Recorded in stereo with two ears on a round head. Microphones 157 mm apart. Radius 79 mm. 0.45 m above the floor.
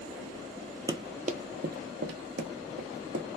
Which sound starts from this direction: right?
Running footsteps, at 0.9 s.